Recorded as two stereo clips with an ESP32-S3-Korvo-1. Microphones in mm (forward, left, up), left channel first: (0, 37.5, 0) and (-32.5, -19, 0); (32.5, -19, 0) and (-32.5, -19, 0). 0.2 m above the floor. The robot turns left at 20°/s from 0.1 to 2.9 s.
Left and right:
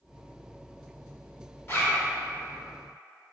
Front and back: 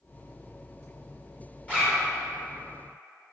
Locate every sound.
1.7 s a zipper: 55° left, 1.6 m; by 2.0 s 45° left, 1.6 m